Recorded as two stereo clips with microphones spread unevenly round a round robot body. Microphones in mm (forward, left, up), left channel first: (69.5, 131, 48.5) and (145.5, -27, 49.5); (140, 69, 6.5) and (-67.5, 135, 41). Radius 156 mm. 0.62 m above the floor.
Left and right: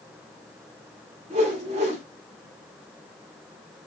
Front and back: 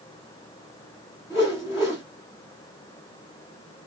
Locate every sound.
1.3 s a whoosh: 100° right, 0.8 m